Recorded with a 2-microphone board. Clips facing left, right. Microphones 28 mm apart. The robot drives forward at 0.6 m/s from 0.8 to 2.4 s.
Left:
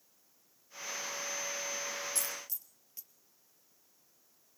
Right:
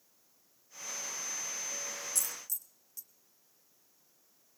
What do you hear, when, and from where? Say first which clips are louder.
2.1 s a dropped coin: left 1 dB; 30° left (ahead or behind), 1.5 m; by 3.1 s 25° left (ahead or behind), 1.6 m